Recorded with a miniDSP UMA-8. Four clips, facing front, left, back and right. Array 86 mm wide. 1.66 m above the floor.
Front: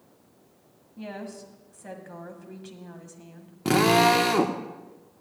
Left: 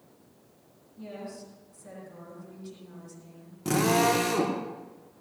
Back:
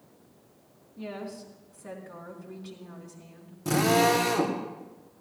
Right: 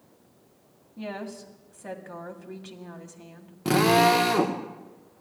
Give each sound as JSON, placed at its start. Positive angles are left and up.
{"t": 1.0, "sound": "a woman speaking", "azimuth_deg": -65, "distance_m": 2.0}
{"t": 3.6, "sound": "a drill", "azimuth_deg": -25, "distance_m": 1.2}